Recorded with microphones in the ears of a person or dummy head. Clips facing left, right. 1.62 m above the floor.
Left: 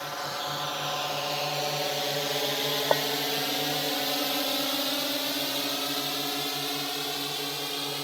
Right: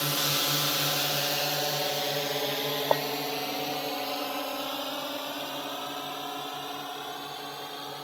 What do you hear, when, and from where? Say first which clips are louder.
0.0 s a drone: right 2 dB; 45° right (ahead or behind); by 8.1 s 35° left (ahead or behind)
2.9 s a clink: left 1 dB; 5° left (ahead or behind)